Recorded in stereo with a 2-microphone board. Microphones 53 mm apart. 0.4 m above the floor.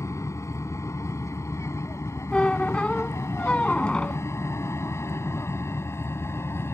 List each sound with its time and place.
0.0 s an aircraft: 70° left (ahead or behind); by 6.8 s 55° left (ahead or behind)
2.3 s a squeak: 15° left (ahead or behind)